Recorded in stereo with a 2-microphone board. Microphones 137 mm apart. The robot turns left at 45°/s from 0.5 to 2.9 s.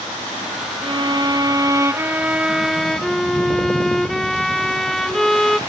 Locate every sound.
0.8 s a violin: 90° right; by 5.6 s 175° left